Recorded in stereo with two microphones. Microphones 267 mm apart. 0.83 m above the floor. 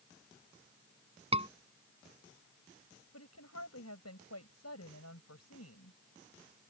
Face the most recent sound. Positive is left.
turn(degrees=75)  # may be behind; listen again after turning